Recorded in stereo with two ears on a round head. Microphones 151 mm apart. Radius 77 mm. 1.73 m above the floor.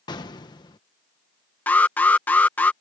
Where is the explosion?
25° left (ahead or behind).